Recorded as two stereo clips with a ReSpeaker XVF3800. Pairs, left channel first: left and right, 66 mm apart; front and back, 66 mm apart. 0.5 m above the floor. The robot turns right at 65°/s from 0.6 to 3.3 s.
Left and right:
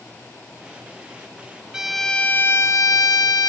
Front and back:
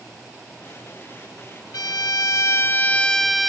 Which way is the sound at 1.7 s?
10° right.